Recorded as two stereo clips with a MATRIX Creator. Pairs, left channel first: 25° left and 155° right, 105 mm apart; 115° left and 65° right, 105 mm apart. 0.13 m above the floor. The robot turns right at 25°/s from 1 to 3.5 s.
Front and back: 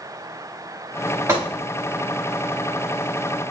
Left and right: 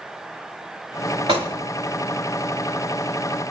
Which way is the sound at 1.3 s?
95° right.